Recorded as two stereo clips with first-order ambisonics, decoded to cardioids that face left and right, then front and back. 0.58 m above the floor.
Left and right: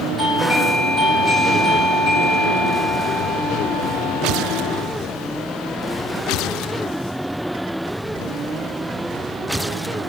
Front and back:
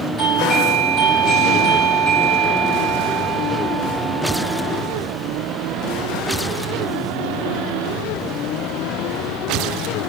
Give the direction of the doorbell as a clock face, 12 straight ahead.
11 o'clock.